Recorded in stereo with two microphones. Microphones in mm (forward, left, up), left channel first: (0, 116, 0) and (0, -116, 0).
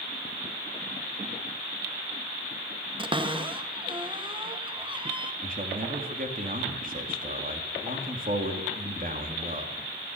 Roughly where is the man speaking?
Right.